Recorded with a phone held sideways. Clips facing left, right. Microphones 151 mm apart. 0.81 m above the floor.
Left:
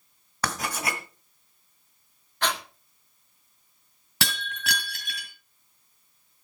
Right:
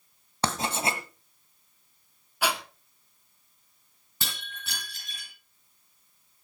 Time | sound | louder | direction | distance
0.4 | writing | right 2 dB | 25° right (ahead or behind) | 1.5 m
2.4 | breathing | even | 10° right (ahead or behind) | 1.5 m
4.2 | breaking glass | left 9 dB | 80° left | 3 m